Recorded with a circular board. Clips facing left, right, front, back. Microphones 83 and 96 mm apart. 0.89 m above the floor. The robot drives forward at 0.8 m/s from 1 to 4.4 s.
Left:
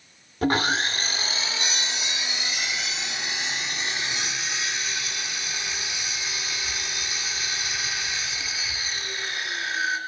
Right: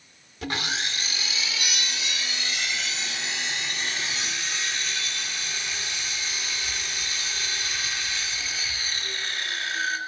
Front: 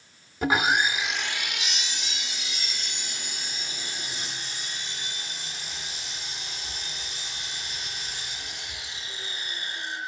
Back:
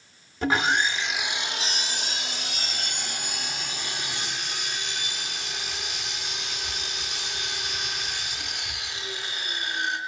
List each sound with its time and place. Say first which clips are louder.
0.4 s sawing: left 8 dB, even; 80° left, 0.6 m; by 10.0 s 170° left, 2.5 m